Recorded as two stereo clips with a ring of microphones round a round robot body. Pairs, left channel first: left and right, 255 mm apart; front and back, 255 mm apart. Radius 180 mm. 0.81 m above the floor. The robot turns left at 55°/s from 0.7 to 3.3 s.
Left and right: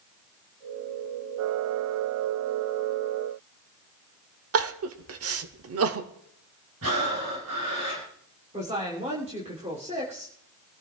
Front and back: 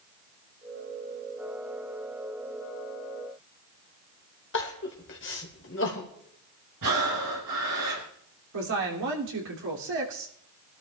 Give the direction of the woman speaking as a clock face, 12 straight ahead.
5 o'clock.